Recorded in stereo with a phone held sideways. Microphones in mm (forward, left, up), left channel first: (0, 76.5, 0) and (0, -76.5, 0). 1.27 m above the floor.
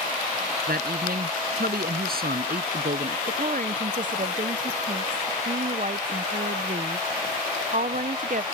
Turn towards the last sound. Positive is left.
turn(degrees=-60)  # may be behind; listen again after turning